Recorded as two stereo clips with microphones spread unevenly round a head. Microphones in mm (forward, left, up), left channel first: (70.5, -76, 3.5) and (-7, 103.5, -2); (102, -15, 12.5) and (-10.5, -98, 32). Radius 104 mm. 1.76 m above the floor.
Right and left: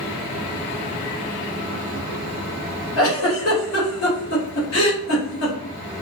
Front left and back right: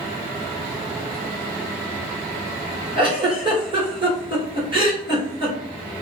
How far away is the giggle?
About 2.5 m.